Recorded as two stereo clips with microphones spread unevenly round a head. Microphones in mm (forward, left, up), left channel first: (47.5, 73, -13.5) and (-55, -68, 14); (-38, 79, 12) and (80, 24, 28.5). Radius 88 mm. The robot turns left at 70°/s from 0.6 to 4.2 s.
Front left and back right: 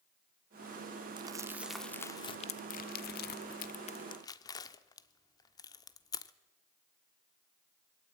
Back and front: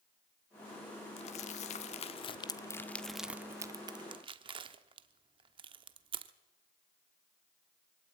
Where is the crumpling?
165° right, 0.9 m; by 6.3 s 20° right, 0.9 m.